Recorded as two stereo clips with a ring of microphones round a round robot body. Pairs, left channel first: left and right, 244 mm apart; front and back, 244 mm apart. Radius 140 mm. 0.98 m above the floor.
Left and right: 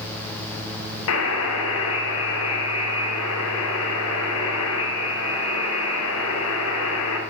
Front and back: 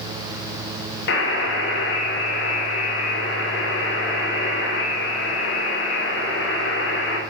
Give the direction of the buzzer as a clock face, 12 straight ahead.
10 o'clock.